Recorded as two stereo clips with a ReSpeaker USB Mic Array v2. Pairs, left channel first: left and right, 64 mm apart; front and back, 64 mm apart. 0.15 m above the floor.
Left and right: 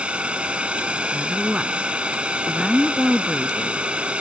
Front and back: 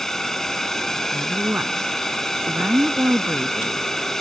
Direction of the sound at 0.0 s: 70° right.